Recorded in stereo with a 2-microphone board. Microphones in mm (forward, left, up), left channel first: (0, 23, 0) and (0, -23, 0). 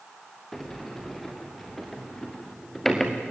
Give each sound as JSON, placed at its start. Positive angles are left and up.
{"t": 0.5, "sound": "a sliding door", "side_deg": 10, "distance_m": 2.5}